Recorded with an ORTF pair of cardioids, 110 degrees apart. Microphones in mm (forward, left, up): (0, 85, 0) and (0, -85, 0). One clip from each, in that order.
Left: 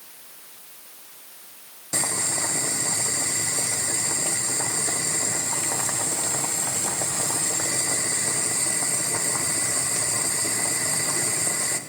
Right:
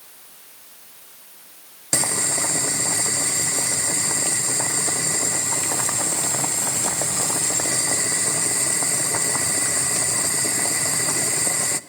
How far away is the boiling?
About 0.5 m.